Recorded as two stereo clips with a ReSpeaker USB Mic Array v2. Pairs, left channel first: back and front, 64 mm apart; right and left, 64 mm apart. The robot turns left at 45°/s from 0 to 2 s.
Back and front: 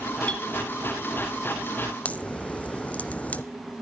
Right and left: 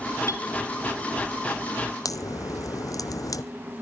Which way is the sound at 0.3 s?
110° right.